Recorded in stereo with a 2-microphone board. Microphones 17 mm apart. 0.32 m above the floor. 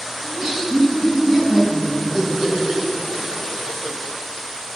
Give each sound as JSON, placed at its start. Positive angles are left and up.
{"t": 0.2, "sound": "laughter", "side_deg": -30, "distance_m": 3.0}